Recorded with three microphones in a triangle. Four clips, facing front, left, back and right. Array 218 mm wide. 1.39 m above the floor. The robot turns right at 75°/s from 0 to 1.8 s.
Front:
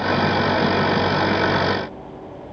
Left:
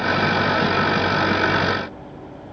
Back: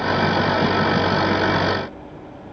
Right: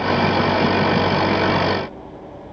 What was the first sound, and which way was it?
Only background noise.